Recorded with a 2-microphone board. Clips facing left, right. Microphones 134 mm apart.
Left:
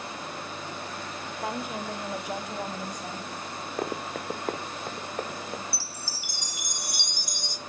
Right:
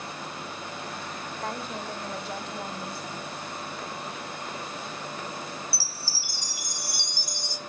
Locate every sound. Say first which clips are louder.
1.4 s a woman speaking: left 2 dB; 5° left (ahead or behind), 1.1 m; by 3.3 s 15° left (ahead or behind), 2.5 m
3.8 s running footsteps: left 5 dB; 50° left (ahead or behind), 0.9 m
5.7 s a chime: even; 20° left (ahead or behind), 0.6 m